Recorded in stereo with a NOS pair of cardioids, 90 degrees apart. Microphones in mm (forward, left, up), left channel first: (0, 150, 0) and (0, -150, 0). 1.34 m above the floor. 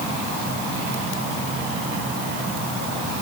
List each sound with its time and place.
Only background noise.